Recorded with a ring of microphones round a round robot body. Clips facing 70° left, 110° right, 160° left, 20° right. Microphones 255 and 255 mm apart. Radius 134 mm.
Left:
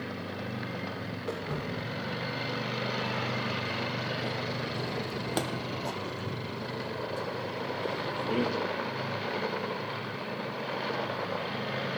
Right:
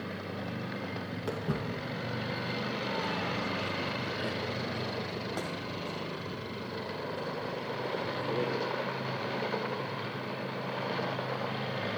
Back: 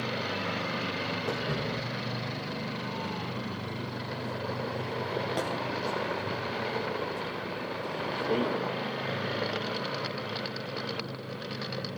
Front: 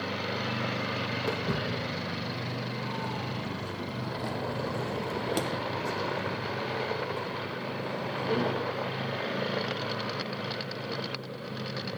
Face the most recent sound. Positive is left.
turn(degrees=75)